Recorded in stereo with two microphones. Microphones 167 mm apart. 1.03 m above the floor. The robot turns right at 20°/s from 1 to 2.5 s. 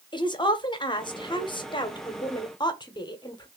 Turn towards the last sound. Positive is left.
turn(degrees=30)  # may be behind; listen again after turning